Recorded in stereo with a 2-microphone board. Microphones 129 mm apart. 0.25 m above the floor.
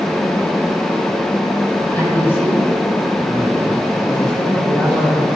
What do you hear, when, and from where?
1.9 s a man speaking: 20° left (ahead or behind), 7.5 m; by 5.3 s 5° left (ahead or behind), 9 m